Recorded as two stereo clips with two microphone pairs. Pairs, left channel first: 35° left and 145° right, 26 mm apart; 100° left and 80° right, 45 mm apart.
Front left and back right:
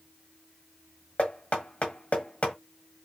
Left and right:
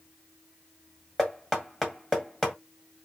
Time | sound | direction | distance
1.2 | knocking | 20° left | 1.8 m